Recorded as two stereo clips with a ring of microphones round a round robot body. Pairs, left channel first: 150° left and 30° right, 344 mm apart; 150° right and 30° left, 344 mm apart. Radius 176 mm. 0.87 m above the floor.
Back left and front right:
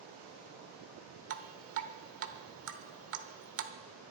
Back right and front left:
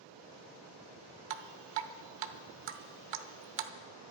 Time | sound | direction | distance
1.3 | dripping | 20° left | 1.0 m